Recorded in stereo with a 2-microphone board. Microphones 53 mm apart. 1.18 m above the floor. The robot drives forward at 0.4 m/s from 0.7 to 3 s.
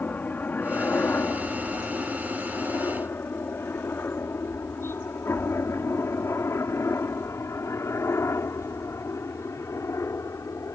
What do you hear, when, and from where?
0.0 s a helicopter: 30° left (ahead or behind); by 10.8 s 65° left (ahead or behind)